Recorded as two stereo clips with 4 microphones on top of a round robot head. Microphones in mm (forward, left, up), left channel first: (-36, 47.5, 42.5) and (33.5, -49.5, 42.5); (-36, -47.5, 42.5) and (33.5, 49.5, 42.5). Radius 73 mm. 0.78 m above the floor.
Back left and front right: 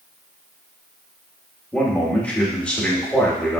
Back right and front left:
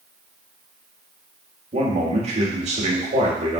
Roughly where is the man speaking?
Ahead left.